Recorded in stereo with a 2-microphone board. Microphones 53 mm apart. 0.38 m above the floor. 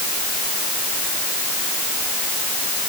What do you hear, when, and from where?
Only background noise.